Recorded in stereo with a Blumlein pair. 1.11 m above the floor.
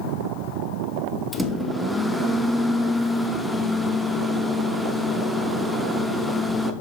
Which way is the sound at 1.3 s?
5° left.